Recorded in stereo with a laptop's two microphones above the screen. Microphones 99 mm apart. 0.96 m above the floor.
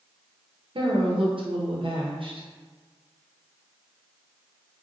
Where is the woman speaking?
60° right (ahead or behind), 0.7 m.